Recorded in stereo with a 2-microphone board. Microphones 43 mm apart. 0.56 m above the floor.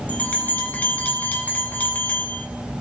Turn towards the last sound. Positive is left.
turn(degrees=40)  # may be behind; listen again after turning